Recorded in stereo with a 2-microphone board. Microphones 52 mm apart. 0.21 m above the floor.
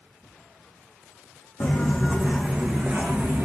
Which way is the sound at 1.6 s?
30° left (ahead or behind).